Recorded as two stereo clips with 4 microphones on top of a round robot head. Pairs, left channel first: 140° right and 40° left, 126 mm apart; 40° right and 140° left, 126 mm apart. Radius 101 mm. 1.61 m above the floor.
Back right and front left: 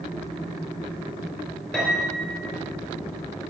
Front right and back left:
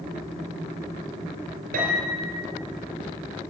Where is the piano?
135° left, 3.5 m.